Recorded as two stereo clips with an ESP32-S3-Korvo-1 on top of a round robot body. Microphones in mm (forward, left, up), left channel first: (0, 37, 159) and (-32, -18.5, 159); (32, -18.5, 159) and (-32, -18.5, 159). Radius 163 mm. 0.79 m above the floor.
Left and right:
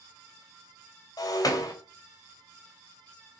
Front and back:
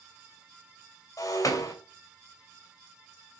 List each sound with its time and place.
1.2 s breaking glass: 35° left, 2.5 m